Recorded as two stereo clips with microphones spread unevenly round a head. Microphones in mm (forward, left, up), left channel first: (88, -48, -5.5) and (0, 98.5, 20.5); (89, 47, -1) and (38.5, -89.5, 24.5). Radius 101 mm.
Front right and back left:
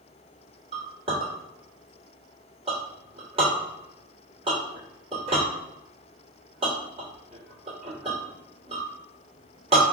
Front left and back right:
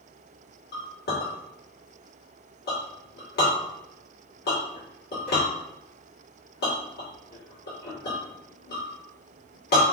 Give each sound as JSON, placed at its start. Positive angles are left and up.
{"t": 0.7, "sound": "a clink", "azimuth_deg": 65, "distance_m": 2.0}